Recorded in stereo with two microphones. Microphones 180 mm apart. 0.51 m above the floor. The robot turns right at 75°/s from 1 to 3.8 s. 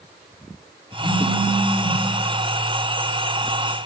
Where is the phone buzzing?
Straight ahead, 4.5 m; by 2.0 s 70° left, 4.5 m.